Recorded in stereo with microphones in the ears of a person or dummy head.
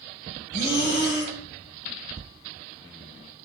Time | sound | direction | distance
0.5 | breathing | 40° left (ahead or behind) | 1.0 m